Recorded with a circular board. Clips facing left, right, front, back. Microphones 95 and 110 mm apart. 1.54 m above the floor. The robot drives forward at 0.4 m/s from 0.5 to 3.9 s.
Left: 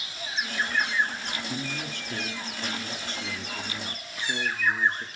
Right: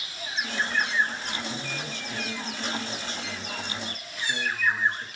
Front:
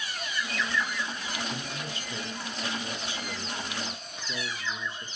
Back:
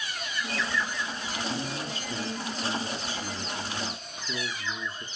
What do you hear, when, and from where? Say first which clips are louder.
1.5 s a man speaking: left 1 dB, back 3 dB; 125° left, 3 m; by 5.0 s 135° left, 3.5 m